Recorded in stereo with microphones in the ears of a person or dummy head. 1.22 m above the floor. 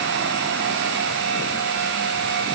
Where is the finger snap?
I don't hear a finger snap.